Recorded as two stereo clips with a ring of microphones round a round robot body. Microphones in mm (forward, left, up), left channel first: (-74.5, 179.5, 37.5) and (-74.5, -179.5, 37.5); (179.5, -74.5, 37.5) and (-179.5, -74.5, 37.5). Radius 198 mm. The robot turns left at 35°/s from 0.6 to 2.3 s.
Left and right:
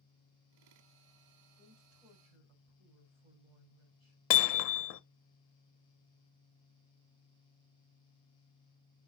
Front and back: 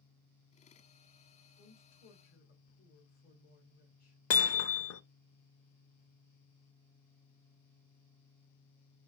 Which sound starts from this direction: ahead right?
A woman speaking, at 1.6 s.